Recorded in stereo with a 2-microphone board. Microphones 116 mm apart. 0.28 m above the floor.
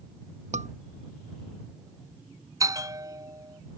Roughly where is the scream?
Right.